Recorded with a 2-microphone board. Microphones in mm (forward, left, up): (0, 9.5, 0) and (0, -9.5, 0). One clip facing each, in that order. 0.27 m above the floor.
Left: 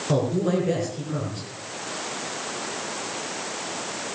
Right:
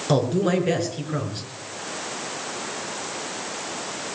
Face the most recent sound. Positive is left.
turn(degrees=-40)  # may be behind; listen again after turning